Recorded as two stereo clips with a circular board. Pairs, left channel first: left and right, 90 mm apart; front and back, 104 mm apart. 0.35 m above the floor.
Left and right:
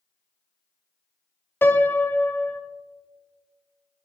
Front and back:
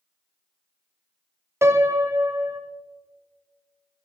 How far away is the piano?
About 0.5 m.